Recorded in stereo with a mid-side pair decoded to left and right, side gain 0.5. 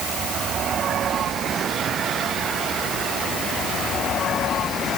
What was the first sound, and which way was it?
Only background noise.